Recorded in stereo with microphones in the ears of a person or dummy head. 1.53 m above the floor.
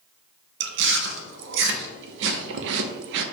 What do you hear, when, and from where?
0.6 s chewing: 60° right (ahead or behind), 0.6 m